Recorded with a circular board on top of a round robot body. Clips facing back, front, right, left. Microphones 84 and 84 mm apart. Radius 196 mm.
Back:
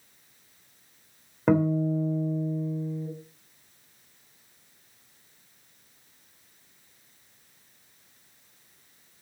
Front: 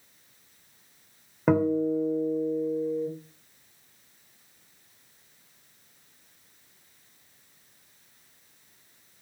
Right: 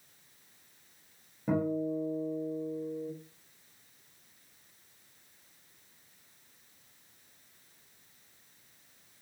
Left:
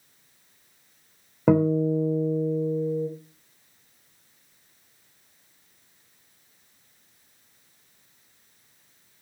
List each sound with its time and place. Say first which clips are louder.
1.5 s a guitar: even, left 10 dB; 90° left, 3.5 m